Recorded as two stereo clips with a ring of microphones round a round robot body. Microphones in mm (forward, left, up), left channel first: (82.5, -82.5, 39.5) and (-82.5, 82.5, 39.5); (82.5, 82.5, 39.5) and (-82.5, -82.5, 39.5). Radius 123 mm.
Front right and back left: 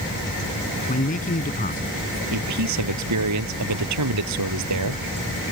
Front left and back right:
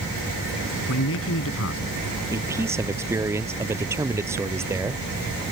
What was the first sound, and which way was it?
A man speaking, 15° left.